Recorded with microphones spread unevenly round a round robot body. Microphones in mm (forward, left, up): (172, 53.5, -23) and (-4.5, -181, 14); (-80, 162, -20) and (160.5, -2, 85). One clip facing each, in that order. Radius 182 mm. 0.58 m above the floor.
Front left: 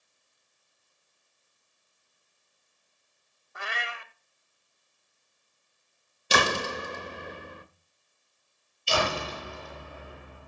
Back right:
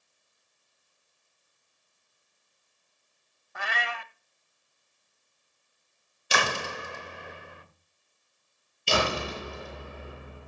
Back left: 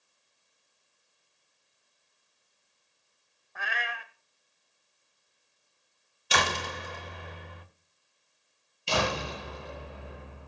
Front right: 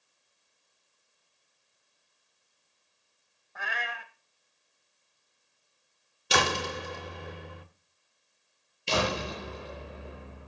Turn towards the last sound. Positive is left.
turn(degrees=-100)